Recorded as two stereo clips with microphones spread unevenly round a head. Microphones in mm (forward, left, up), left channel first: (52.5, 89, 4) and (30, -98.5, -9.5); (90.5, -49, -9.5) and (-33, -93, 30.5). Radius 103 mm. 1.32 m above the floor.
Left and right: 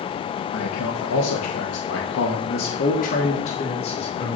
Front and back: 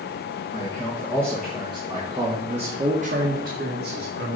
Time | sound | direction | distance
0.5 | a man speaking | 85° left | 1.6 m